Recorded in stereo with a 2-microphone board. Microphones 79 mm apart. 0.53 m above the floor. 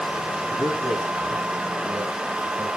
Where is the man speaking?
75° right (ahead or behind), 4 m; by 2.7 s 45° right (ahead or behind), 3 m.